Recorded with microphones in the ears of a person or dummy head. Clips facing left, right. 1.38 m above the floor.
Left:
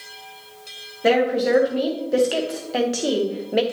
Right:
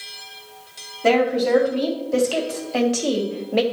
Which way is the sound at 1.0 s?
15° left (ahead or behind).